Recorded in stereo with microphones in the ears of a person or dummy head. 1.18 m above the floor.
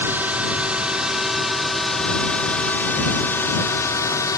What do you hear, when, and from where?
0.0 s a drone: 5° right (ahead or behind); by 4.4 s 20° left (ahead or behind)